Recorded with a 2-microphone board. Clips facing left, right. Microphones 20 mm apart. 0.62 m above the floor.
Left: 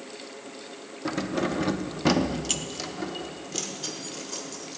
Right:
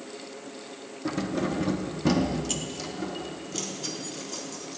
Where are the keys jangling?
15° left (ahead or behind), 0.8 m.